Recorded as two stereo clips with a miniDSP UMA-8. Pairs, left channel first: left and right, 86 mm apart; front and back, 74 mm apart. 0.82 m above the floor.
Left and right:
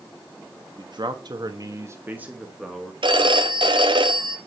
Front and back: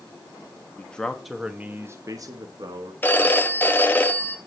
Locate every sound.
0.8 s a man speaking: 70° right, 1.6 m; by 2.9 s straight behind, 1.9 m
3.0 s a phone ringing: 70° right, 1.0 m